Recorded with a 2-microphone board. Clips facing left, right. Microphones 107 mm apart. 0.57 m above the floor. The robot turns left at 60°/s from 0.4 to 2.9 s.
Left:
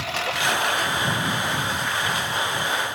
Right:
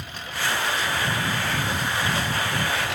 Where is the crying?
I don't hear crying.